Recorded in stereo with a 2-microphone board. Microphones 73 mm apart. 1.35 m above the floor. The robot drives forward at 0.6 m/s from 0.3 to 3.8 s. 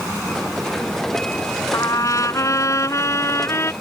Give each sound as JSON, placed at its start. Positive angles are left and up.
{"t": 1.7, "sound": "a trumpet", "side_deg": 55}